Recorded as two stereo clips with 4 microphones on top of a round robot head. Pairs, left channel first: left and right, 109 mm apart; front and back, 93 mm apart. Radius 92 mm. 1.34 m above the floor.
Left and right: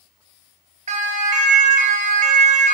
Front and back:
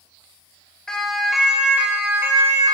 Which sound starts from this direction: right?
A siren, at 0.9 s.